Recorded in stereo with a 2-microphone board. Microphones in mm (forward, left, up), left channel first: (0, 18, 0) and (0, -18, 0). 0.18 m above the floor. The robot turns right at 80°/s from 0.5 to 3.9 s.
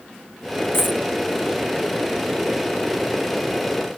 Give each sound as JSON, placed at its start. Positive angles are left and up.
{"t": 0.7, "sound": "a dropped coin", "side_deg": 80}